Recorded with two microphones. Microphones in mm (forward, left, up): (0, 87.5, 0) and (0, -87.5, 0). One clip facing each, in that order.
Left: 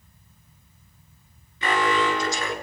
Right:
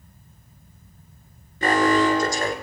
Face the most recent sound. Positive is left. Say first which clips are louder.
# right 5 dB
turn(degrees=-45)  # may be behind; listen again after turning